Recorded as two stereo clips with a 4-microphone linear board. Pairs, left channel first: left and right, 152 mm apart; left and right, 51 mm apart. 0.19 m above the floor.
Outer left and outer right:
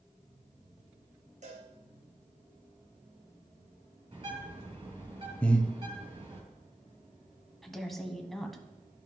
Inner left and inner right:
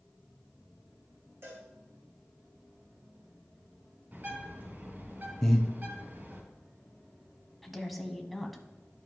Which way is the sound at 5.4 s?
10° left (ahead or behind).